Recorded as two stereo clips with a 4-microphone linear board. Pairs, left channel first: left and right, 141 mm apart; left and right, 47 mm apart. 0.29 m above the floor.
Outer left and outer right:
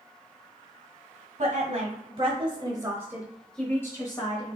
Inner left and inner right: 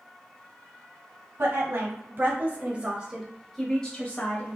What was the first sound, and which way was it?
A woman speaking, 55° right (ahead or behind).